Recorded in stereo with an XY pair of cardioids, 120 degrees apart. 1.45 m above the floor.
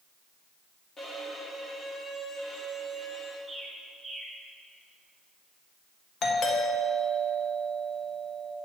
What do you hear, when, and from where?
1.0 s a violin: 30° left, 1.7 m
3.5 s a bird: 20° right, 2 m
6.2 s a doorbell: 50° left, 1.5 m